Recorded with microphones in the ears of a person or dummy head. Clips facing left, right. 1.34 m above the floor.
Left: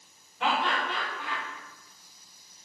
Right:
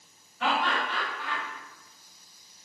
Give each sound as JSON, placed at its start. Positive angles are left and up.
{"t": 0.4, "sound": "laughter", "side_deg": 15, "distance_m": 1.6}